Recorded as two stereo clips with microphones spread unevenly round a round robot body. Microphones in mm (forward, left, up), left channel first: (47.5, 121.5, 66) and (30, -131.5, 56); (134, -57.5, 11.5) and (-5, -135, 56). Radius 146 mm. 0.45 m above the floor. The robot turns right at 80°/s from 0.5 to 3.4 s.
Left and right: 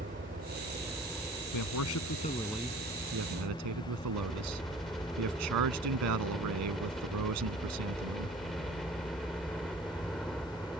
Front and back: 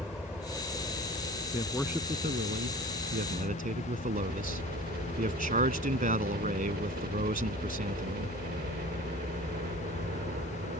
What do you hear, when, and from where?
0.0 s a helicopter: 55° right; by 10.8 s 175° left
1.5 s a man speaking: 95° left; by 8.4 s 115° right